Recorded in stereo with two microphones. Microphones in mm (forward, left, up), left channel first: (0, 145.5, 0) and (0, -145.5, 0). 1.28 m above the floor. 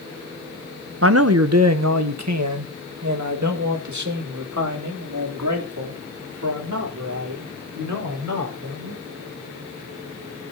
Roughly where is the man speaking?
Right.